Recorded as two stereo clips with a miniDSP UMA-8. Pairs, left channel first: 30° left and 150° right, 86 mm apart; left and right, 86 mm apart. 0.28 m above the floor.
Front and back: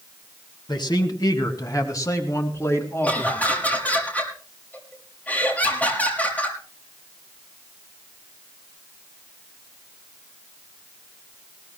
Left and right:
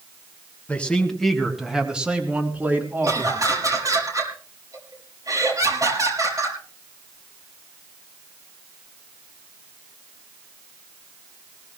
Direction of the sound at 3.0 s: 40° right.